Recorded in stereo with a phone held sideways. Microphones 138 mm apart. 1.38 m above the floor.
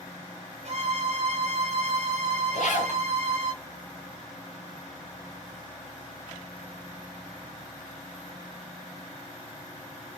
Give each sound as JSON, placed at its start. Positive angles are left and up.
{"t": 0.7, "sound": "a violin", "side_deg": -55, "distance_m": 0.6}
{"t": 2.5, "sound": "a zipper", "side_deg": 65, "distance_m": 0.6}